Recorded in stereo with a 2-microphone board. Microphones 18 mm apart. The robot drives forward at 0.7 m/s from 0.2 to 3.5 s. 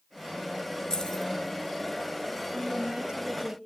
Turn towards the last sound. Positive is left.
turn(degrees=-55)  # may be behind; listen again after turning